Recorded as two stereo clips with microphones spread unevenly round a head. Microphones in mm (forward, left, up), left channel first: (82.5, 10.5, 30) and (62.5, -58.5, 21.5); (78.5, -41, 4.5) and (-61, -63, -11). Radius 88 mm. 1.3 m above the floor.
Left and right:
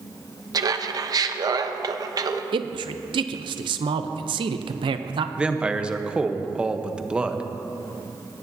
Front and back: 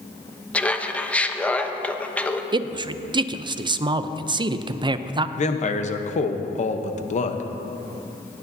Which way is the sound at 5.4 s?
30° right.